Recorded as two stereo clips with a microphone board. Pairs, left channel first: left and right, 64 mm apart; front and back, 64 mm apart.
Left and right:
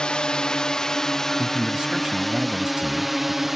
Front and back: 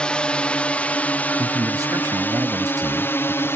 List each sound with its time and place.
0.0 s a drone: 45° left; by 3.6 s 5° right
1.4 s a man speaking: 165° right